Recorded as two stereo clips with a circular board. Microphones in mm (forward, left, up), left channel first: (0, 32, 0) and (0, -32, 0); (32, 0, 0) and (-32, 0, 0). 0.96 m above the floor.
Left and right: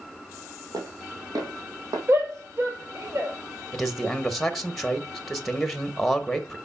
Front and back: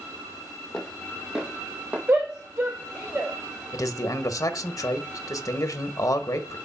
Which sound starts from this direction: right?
Footsteps, at 0.7 s.